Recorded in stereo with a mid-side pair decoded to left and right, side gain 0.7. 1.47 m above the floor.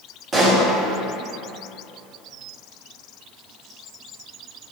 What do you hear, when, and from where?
0.3 s a pop: 25° right, 1.1 m